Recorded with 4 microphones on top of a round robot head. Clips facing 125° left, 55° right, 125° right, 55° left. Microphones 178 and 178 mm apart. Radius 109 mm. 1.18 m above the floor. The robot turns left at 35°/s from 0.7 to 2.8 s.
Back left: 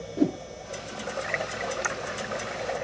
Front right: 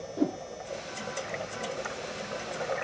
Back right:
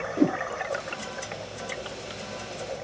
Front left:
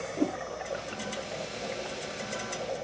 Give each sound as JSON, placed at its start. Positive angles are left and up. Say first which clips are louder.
{"t": 0.2, "sound": "a whoosh", "louder": "back left 4 dB, back right 7 dB", "azimuth_deg": -170}